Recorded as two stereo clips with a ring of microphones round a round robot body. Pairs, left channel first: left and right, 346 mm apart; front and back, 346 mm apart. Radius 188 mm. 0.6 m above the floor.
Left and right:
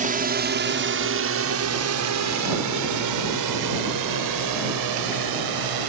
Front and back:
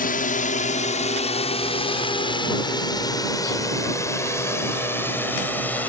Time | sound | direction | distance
0.0 | a drone | 45° right | ?